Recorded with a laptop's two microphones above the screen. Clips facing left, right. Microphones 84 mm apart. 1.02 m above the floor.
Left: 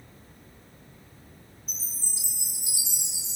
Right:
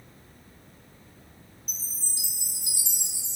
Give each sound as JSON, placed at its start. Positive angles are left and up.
{"t": 1.7, "sound": "a chime", "side_deg": 20, "distance_m": 2.5}